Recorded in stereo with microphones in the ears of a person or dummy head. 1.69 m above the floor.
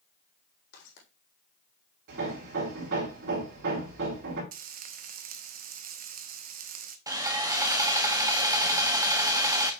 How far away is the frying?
About 0.6 m.